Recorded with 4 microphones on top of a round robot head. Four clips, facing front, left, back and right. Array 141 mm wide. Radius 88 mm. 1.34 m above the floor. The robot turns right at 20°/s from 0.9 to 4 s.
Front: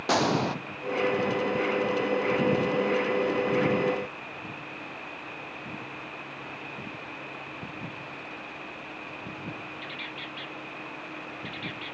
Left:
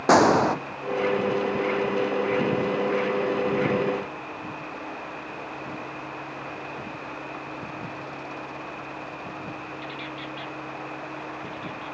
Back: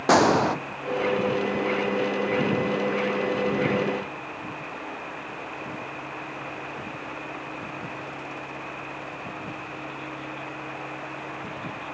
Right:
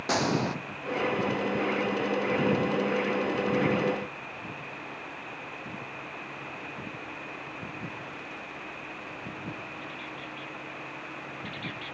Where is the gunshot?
120° left, 0.8 m.